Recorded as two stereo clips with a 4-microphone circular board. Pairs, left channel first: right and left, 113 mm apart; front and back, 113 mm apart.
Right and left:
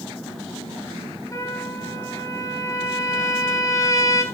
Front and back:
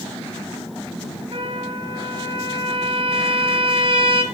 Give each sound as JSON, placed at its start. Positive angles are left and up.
{"t": 1.3, "sound": "a trumpet", "azimuth_deg": -155, "distance_m": 3.5}